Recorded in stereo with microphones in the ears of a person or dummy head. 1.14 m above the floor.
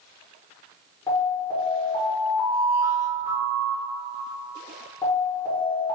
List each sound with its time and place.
1.1 s an alarm: 15° left (ahead or behind), 1.3 m